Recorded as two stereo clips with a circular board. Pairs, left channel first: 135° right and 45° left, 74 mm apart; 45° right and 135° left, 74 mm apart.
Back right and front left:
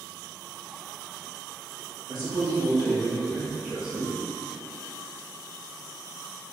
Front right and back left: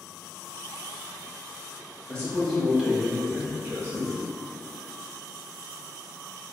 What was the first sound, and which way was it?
A man speaking, 25° left.